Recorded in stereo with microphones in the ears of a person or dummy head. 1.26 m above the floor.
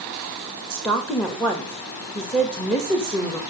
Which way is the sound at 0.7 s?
5° left (ahead or behind).